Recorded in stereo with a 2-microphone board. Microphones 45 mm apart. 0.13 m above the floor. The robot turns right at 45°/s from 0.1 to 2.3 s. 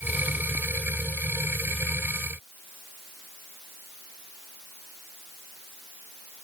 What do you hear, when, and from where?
Only background noise.